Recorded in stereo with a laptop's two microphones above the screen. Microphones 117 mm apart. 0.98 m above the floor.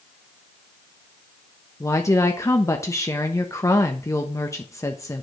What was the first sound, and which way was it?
A woman speaking, 25° left (ahead or behind).